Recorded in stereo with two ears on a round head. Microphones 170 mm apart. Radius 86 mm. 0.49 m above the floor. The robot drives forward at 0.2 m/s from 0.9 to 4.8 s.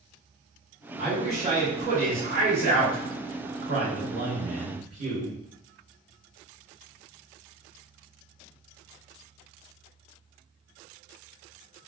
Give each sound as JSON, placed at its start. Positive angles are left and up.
{"t": 1.0, "sound": "a man speaking", "side_deg": -45, "distance_m": 1.7}